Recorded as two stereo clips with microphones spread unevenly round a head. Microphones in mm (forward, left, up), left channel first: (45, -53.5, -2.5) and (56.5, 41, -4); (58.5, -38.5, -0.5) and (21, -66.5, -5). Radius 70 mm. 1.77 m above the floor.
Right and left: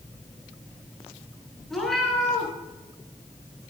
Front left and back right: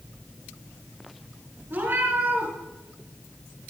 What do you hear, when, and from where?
1.7 s a cat meowing: 175° left, 2.5 m